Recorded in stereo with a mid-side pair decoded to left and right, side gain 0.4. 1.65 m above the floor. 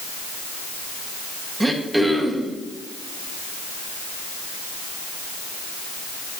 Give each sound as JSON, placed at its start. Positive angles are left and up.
{"t": 1.6, "sound": "throat clearing", "azimuth_deg": -15, "distance_m": 1.7}